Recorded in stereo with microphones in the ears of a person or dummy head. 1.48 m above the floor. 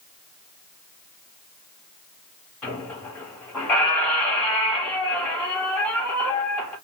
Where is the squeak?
5° left (ahead or behind), 1.6 m.